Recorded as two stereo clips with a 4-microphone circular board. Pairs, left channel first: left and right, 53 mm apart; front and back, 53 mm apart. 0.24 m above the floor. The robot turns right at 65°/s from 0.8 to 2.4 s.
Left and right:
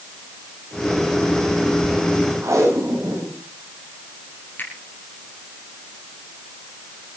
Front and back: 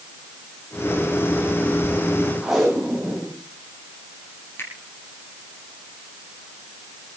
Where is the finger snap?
40° left, 5.5 m.